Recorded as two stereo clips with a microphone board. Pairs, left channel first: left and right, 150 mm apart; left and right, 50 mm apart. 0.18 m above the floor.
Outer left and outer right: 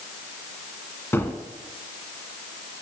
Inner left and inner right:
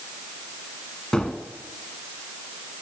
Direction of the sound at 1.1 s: 15° left (ahead or behind).